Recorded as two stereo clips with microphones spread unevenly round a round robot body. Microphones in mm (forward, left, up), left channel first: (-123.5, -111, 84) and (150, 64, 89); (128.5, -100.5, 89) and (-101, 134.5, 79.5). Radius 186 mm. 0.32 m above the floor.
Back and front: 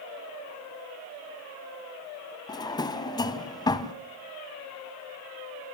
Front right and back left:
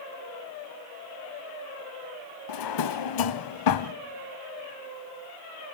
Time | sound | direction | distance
2.5 | a drawer | 70° right | 1.0 m